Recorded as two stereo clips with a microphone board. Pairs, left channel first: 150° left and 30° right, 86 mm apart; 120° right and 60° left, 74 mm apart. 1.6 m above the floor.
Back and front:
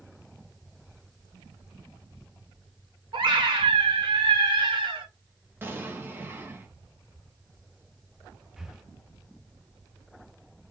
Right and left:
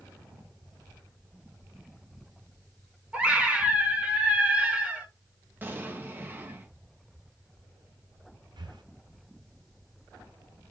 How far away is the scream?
About 1.7 m.